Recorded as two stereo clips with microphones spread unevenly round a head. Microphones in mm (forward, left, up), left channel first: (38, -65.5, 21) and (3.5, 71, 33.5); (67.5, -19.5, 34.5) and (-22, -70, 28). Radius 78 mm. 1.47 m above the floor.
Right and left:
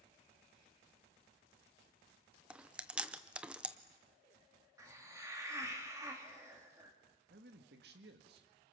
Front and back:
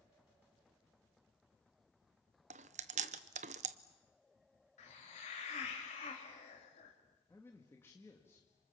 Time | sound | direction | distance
2.5 | chewing | 175° right | 0.6 m
4.8 | a hiss | 35° left | 4 m
7.3 | a man speaking | 105° left | 2.0 m